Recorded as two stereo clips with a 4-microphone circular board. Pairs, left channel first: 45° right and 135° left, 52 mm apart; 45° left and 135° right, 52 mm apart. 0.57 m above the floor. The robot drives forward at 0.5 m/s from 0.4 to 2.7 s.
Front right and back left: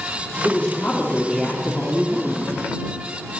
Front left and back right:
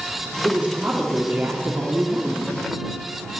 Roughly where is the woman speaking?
Right.